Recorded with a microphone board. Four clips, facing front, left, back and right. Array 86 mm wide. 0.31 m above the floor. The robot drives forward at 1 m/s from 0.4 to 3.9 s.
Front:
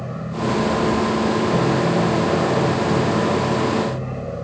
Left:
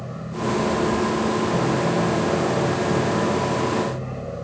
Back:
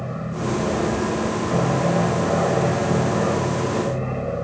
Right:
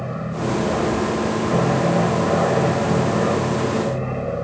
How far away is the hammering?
I don't hear hammering.